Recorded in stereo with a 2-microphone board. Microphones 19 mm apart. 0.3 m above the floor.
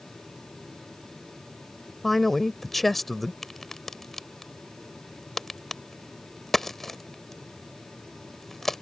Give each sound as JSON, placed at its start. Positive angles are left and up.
{"t": 2.0, "sound": "a man speaking", "side_deg": 10}
{"t": 3.4, "sound": "a crack", "side_deg": 20}